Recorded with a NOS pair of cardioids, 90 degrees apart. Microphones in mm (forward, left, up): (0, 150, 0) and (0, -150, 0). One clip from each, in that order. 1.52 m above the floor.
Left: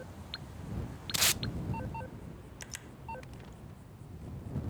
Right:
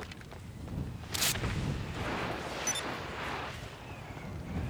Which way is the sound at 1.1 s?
20° left.